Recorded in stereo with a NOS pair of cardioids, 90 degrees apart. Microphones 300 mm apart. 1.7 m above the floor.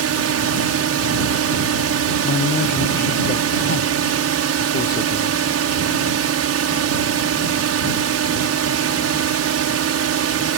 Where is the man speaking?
35° left.